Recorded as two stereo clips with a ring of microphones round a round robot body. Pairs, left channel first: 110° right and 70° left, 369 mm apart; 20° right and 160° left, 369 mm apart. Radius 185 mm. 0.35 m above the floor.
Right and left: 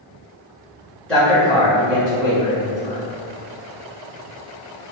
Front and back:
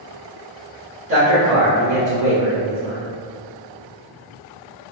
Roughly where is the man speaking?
Behind.